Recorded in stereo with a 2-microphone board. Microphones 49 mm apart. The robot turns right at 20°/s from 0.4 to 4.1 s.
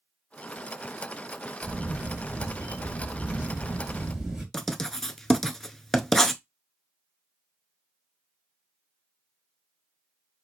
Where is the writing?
10° left (ahead or behind), 0.5 m.